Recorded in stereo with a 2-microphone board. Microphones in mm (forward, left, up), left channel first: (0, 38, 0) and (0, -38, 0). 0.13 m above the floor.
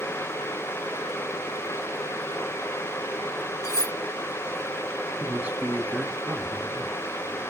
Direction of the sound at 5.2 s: 20° right (ahead or behind).